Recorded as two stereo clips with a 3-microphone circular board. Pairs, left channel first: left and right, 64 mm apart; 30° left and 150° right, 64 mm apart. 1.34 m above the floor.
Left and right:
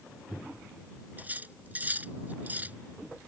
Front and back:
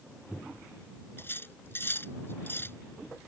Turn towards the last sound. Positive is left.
turn(degrees=-25)